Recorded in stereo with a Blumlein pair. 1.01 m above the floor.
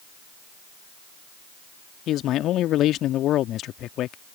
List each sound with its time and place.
2.1 s a man speaking: 35° left